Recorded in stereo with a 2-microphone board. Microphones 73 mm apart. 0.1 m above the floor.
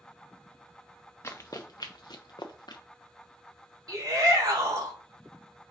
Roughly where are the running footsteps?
Left.